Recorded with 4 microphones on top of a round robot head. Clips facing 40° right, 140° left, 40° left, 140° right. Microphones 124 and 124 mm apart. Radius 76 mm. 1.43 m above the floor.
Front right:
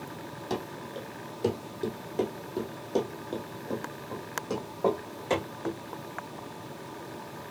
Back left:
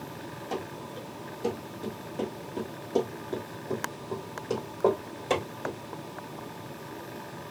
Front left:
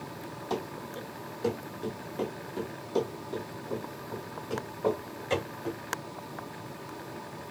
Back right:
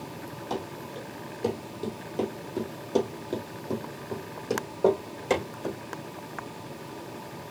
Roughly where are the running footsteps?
Ahead right.